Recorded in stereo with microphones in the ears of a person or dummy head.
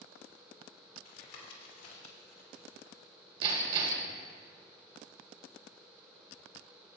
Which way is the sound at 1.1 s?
80° left.